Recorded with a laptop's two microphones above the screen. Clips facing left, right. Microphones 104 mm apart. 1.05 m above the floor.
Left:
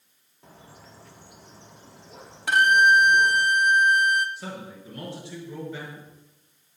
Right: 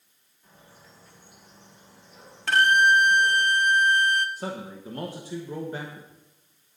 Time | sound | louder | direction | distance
0.4 | a bird | left 5 dB | 80° left | 1.3 m
2.5 | a violin | left 1 dB | 15° left (ahead or behind) | 0.6 m
4.4 | a man speaking | right 3 dB | 40° right (ahead or behind) | 1.2 m